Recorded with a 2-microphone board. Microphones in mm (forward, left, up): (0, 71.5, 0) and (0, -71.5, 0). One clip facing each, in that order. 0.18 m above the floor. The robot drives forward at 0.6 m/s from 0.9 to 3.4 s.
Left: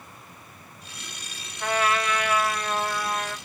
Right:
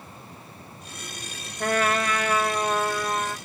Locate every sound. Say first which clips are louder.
1.6 s a trumpet: right 1 dB; 50° right (ahead or behind), 0.6 m; by 3.4 s 20° right (ahead or behind), 1.5 m